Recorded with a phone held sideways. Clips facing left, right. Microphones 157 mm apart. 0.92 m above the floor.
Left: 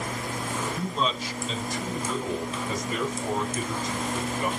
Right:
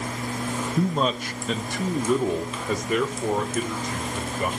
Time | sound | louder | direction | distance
0.8 | a man speaking | right 8 dB | 40° right (ahead or behind) | 0.9 m